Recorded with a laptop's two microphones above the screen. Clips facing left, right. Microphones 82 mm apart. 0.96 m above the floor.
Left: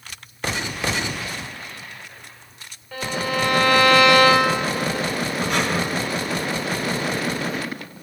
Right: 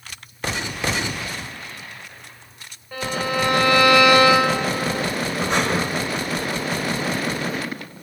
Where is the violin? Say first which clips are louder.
Right 1 dB; 15° right (ahead or behind), 2 m.